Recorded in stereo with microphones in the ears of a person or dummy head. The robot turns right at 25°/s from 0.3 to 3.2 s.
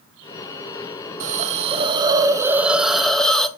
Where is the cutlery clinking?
No cutlery clinking in this recording.